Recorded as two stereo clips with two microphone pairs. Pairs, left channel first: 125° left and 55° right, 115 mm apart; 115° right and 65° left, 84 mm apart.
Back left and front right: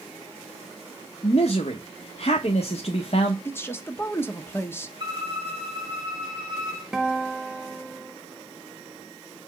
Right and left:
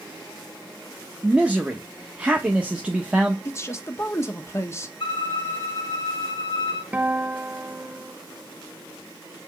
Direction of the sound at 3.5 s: 170° right.